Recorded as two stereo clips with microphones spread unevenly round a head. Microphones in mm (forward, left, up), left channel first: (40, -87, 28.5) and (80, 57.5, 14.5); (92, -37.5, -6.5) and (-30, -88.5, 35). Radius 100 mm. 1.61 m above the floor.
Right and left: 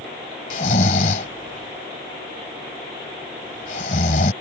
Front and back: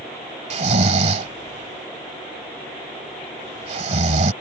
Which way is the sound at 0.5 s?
150° right.